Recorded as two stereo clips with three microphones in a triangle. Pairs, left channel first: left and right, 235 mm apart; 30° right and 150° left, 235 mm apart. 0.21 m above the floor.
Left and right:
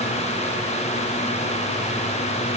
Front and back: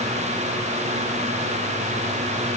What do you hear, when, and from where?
Only background noise.